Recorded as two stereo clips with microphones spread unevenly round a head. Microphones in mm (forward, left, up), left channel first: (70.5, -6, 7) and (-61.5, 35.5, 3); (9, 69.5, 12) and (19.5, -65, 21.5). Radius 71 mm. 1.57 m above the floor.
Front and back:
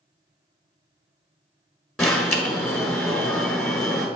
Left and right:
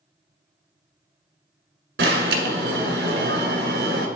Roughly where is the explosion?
I don't hear an explosion.